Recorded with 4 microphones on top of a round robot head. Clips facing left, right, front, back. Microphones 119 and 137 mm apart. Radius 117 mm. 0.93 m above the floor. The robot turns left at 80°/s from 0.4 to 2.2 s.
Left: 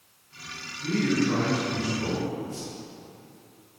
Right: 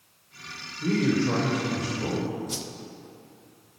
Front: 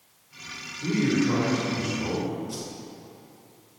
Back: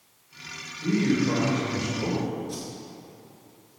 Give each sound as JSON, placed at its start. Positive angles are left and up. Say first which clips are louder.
{"t": 0.8, "sound": "a man speaking", "louder": "right 1 dB, even", "azimuth_deg": -75, "distance_m": 3.5}
{"t": 2.5, "sound": "a whoosh", "louder": "even, even", "azimuth_deg": -85, "distance_m": 0.7}